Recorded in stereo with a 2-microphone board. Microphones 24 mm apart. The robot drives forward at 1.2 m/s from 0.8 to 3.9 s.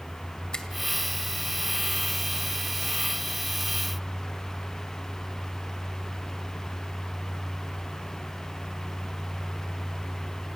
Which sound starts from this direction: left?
A finger snap, at 0.5 s.